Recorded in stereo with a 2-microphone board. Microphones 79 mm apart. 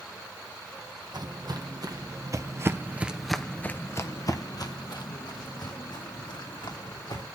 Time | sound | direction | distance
1.1 | footsteps | 60° right (ahead or behind) | 1.9 m